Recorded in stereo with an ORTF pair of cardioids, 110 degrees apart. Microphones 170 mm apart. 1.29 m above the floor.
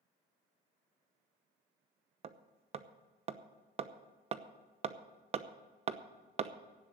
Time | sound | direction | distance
2.2 | hammering | 40° right | 0.8 m